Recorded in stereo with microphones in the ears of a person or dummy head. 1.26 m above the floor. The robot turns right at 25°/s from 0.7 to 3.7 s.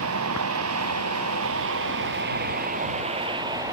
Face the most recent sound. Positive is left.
turn(degrees=-15)  # may be behind; listen again after turning